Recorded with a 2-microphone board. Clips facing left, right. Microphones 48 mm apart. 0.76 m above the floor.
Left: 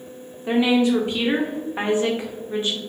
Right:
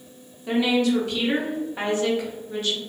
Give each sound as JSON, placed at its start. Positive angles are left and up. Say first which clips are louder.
{"t": 0.5, "sound": "a woman speaking", "louder": "left 3 dB", "side_deg": 25, "distance_m": 0.6}